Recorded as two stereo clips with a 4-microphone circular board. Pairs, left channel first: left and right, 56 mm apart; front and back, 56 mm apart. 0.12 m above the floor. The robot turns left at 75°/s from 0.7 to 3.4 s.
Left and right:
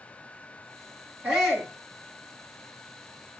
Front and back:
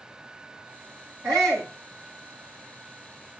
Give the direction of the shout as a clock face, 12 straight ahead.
5 o'clock.